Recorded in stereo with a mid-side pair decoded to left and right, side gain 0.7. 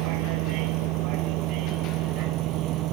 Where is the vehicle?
70° right; by 2.9 s 55° right.